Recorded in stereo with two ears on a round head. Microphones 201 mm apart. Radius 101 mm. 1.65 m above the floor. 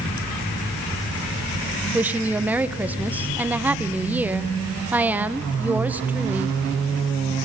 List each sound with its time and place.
1.9 s a woman speaking: 5° right (ahead or behind), 1.0 m